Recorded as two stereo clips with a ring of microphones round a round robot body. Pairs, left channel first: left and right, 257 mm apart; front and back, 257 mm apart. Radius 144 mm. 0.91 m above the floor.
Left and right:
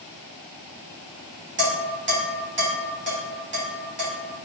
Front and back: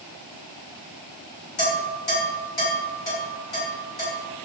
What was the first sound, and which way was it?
Dishes clattering, 45° right.